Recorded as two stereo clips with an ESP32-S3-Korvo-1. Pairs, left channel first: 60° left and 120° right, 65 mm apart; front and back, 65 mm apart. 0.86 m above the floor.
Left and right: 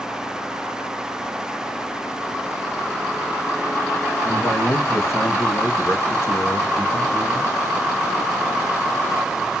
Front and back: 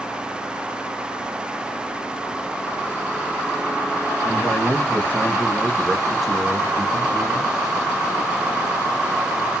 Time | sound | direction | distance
4.2 | a man speaking | 25° left | 1.2 m